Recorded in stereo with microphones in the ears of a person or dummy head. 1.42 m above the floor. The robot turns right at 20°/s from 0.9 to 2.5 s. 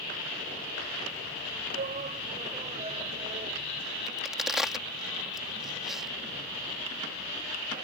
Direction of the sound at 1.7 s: 50° right (ahead or behind).